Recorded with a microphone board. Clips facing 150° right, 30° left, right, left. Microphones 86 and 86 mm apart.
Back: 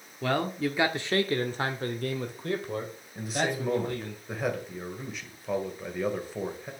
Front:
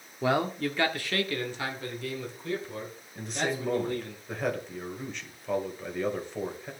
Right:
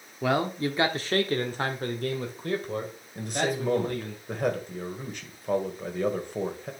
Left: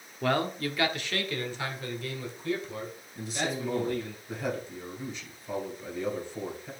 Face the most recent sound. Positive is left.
turn(degrees=-65)